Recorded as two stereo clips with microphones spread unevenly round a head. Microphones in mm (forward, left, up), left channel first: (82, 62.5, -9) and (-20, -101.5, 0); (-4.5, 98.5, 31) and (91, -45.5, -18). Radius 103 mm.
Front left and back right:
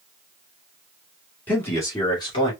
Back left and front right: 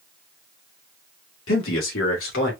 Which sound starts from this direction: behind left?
A man speaking, at 1.5 s.